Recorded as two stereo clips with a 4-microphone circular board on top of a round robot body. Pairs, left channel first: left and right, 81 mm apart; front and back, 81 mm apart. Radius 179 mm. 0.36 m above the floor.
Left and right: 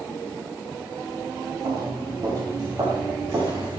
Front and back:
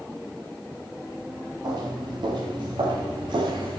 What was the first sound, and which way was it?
Footsteps, 135° right.